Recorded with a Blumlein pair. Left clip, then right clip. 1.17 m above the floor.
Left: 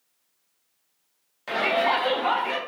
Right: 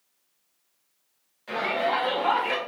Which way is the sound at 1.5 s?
65° left.